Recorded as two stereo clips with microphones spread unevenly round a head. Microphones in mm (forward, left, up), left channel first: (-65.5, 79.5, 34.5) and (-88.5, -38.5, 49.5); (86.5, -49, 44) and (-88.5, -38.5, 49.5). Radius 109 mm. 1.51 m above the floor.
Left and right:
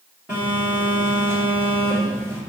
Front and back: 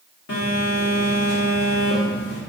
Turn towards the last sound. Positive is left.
turn(degrees=-20)